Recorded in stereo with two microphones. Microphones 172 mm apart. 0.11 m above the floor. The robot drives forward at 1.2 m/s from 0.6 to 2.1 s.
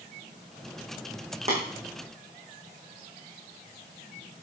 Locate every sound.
1.5 s tapping: 40° right (ahead or behind), 5 m